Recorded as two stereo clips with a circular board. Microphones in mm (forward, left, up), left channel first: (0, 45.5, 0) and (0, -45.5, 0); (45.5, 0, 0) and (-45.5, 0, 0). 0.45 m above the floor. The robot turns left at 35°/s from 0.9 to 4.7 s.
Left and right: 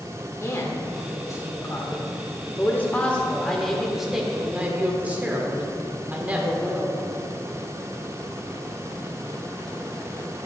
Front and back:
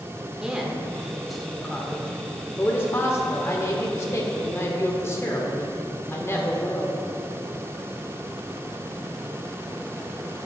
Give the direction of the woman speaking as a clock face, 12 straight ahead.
9 o'clock.